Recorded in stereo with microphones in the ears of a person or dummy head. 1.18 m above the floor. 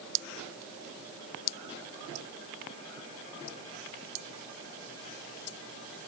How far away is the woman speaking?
I don't hear a woman speaking.